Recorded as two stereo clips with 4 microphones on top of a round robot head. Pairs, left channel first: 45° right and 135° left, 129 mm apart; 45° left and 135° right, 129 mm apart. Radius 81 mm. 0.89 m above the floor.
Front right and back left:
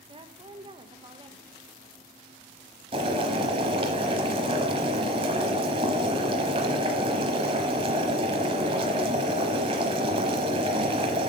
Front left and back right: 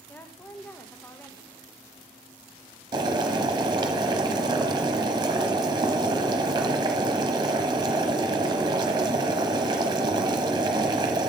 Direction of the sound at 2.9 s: 175° left.